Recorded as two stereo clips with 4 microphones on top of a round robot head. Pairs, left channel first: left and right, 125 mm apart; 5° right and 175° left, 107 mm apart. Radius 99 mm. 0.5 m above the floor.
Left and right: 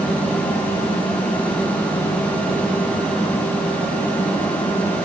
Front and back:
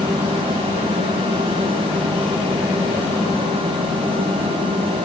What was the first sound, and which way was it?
Only background noise.